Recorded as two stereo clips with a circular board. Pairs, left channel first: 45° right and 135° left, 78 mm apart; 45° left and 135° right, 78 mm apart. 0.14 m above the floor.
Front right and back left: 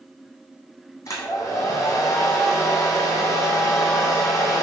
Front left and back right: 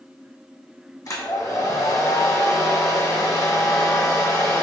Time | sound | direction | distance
1.1 | a hair dryer | straight ahead | 1.3 m